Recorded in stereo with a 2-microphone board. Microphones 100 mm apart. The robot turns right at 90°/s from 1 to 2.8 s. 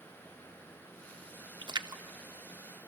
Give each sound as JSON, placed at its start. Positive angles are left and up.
{"t": 1.6, "sound": "a splash", "side_deg": -50, "distance_m": 0.6}